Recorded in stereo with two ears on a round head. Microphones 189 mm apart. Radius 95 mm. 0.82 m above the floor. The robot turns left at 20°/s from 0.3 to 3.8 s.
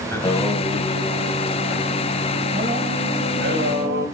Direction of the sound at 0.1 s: 10° left.